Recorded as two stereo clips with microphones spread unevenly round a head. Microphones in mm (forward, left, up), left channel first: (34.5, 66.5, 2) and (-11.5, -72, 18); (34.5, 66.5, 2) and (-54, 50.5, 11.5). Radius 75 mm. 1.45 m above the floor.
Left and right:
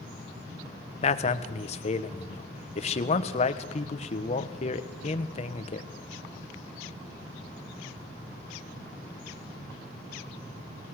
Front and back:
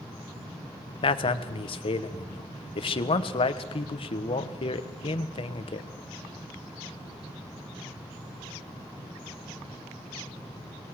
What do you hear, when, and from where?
1.0 s a man speaking: 25° left, 1.2 m